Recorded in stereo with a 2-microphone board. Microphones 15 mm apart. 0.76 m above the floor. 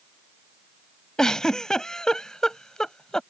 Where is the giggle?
45° left (ahead or behind).